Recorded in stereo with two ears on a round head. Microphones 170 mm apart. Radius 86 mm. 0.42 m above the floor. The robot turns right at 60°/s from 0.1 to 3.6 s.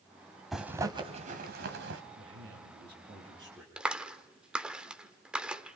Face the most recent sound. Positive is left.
turn(degrees=-5)  # may be behind; listen again after turning